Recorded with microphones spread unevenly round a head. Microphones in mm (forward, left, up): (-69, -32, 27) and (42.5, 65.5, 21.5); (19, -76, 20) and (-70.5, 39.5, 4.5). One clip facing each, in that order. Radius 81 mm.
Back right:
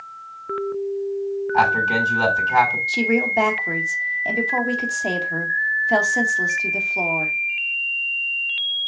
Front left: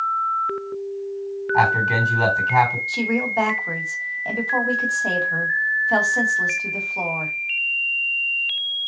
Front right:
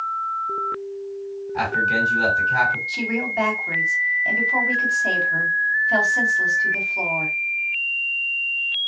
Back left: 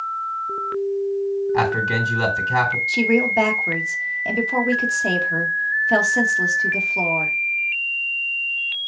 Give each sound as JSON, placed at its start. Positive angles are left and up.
{"t": 1.5, "sound": "a man speaking", "azimuth_deg": 125, "distance_m": 4.0}
{"t": 2.9, "sound": "a woman speaking", "azimuth_deg": 150, "distance_m": 1.5}